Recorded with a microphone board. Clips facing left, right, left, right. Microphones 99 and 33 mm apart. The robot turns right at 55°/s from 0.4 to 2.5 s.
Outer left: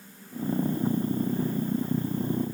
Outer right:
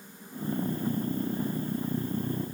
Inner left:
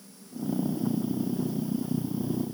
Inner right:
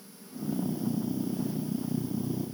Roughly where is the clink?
No clink in this recording.